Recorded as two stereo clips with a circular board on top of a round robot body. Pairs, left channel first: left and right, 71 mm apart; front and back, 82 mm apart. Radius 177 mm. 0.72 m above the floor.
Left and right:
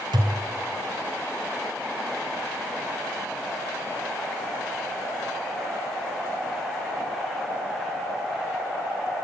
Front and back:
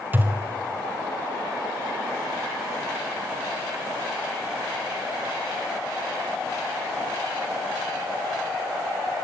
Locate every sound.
0.1 s a thud: 110° right, 1.0 m